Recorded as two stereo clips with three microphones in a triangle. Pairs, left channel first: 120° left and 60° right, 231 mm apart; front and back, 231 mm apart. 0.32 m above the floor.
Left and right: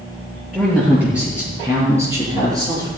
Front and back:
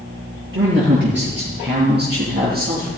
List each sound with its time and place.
0.5 s a man speaking: 145° right, 6.5 m; by 2.9 s 130° right, 6 m